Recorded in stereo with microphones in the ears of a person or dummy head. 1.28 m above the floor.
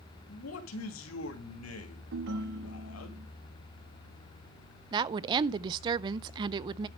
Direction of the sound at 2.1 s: 70° right (ahead or behind).